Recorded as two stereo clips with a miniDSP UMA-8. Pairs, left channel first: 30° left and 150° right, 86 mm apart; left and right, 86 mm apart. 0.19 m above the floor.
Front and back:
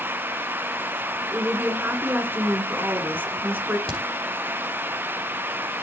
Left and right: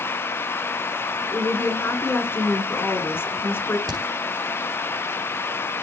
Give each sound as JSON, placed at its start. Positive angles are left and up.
{"t": 1.3, "sound": "a woman speaking", "azimuth_deg": 145, "distance_m": 2.0}
{"t": 3.9, "sound": "a crack", "azimuth_deg": -45, "distance_m": 3.0}